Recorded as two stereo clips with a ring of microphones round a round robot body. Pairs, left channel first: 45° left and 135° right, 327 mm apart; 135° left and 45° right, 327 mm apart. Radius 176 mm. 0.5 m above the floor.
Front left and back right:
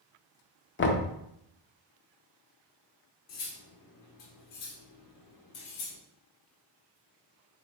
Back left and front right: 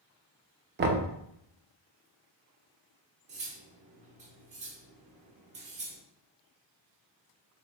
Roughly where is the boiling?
I don't hear boiling.